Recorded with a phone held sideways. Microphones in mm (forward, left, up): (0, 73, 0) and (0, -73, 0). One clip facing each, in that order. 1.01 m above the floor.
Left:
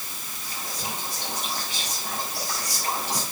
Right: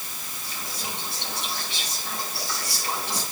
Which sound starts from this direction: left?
Whispering, at 0.4 s.